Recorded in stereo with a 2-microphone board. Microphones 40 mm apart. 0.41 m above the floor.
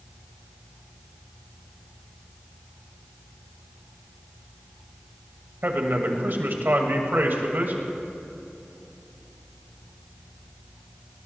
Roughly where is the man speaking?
Right.